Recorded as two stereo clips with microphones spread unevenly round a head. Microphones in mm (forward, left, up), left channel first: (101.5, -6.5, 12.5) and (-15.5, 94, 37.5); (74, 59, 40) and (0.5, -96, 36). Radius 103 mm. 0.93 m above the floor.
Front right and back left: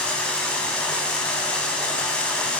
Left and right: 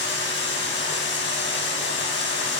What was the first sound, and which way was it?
Running water, 45° left.